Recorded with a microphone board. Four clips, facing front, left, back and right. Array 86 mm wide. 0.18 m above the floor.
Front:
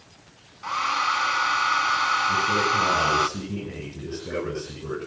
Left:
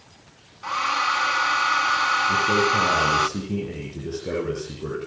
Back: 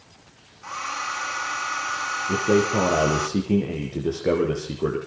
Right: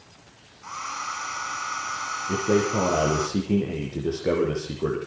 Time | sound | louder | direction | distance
0.6 | a hair dryer | left 9 dB, front 6 dB | 55° left | 1.1 m
2.3 | a man speaking | left 2 dB, back 2 dB | 150° right | 9 m